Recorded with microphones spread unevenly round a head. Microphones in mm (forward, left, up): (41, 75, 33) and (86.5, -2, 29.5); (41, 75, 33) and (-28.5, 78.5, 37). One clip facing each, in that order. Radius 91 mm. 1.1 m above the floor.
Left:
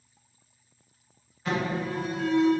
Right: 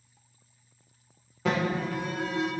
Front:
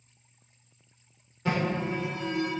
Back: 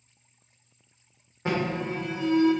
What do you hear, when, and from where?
1.4 s an alarm: 105° right, 2 m